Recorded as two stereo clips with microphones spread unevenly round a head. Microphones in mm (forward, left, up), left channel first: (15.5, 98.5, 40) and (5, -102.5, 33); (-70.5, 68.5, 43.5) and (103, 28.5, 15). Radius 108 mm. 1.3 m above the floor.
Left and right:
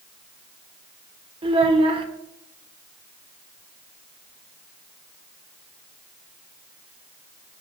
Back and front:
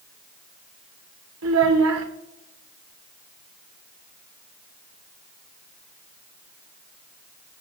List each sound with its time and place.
1.4 s a child speaking: 25° right, 2 m